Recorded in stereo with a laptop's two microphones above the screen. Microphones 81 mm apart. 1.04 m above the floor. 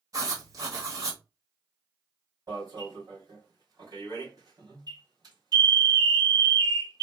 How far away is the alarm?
About 3 m.